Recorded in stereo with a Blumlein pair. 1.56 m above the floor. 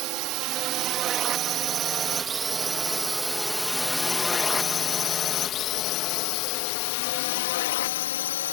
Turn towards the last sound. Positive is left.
turn(degrees=60)